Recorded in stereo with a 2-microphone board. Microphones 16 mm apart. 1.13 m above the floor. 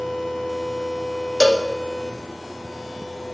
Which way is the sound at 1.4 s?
15° left (ahead or behind).